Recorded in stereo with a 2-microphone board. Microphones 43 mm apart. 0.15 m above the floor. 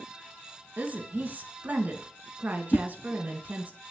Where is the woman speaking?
40° right (ahead or behind), 1.9 m.